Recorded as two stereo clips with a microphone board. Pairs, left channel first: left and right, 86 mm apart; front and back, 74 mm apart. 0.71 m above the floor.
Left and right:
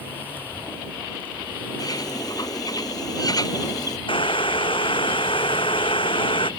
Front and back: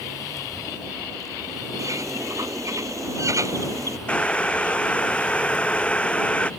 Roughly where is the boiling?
Left.